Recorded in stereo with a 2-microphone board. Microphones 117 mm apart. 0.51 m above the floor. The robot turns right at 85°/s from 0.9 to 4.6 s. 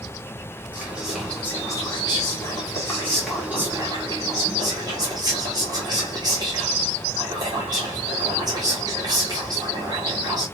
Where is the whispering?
20° right, 1.5 m; by 10.4 s 65° right, 1.5 m.